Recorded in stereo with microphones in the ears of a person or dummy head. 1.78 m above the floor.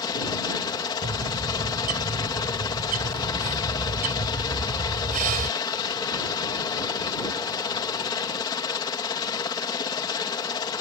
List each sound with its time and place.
0.0 s a helicopter: 20° left (ahead or behind)
1.0 s a bird: 40° right (ahead or behind)